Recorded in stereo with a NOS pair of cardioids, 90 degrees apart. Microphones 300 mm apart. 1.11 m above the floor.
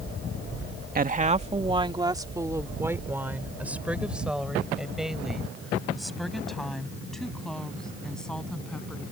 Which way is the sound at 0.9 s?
30° right.